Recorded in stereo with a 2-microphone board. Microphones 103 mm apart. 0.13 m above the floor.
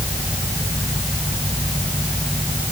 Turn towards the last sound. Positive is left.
No sound to turn to.